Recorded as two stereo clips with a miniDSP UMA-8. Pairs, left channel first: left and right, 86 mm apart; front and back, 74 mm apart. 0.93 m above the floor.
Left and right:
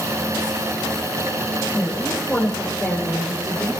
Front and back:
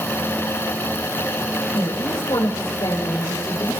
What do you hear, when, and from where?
1.7 s a woman speaking: straight ahead, 3.5 m; by 3.8 s 20° right, 3 m